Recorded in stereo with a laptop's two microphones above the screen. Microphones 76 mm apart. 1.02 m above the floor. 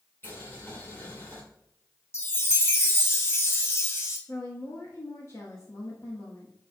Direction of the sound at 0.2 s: 30° left (ahead or behind).